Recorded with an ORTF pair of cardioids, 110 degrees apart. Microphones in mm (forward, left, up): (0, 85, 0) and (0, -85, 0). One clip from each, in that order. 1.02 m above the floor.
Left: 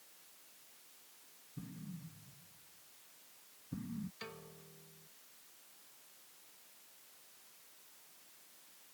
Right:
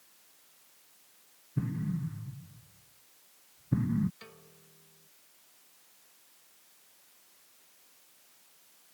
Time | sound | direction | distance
1.6 | an explosion | 70° right | ?
4.2 | a piano | 20° left | ?